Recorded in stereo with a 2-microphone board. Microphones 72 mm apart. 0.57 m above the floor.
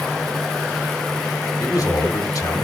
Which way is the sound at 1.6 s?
55° left (ahead or behind).